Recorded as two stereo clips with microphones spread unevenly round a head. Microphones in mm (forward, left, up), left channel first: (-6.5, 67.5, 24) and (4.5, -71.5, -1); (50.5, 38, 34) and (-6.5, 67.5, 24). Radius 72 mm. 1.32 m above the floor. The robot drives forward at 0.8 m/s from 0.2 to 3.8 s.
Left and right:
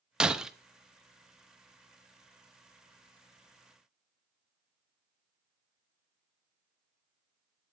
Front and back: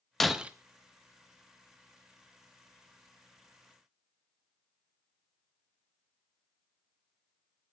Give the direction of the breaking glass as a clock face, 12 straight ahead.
11 o'clock.